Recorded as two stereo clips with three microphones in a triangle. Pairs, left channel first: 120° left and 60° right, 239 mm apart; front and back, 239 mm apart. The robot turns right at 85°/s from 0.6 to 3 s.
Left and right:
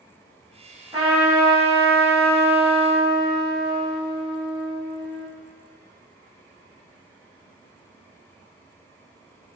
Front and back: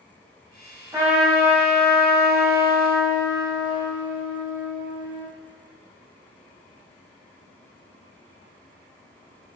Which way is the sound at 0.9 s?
115° right.